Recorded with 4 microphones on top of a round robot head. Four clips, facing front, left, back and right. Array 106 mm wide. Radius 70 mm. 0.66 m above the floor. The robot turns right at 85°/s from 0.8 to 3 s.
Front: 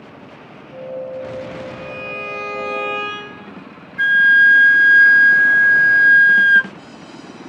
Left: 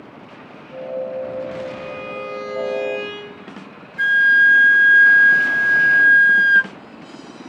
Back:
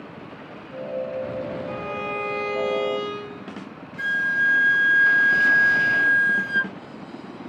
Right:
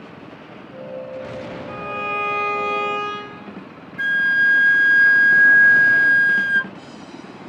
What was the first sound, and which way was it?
A violin, 130° right.